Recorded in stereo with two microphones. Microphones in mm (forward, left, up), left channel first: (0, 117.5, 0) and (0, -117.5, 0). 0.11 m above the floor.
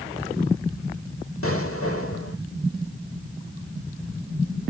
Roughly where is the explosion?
Left.